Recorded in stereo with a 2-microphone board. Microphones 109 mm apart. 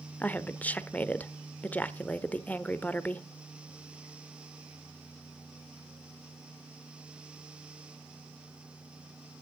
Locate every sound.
0.2 s a woman speaking: 15° left (ahead or behind), 0.8 m